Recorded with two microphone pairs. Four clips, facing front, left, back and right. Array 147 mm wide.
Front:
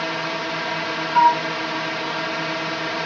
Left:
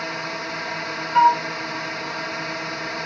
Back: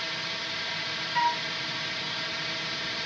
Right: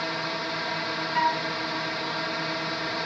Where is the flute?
50° left.